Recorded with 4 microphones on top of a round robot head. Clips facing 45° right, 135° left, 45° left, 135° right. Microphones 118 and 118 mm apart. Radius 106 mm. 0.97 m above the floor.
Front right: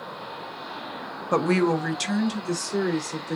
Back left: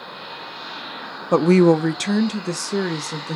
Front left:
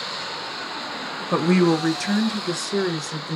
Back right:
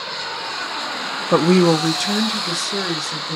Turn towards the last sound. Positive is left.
turn(degrees=135)